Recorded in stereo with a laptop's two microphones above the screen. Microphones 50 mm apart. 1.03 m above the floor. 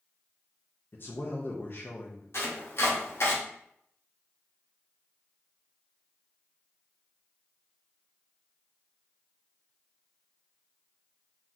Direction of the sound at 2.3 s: 65° left (ahead or behind).